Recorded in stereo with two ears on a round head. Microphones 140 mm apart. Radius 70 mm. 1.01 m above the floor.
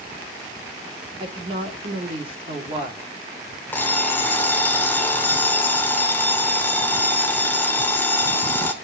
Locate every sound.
1.2 s a woman speaking: 35° right (ahead or behind), 3 m
3.7 s an alarm clock: 10° left (ahead or behind), 1.8 m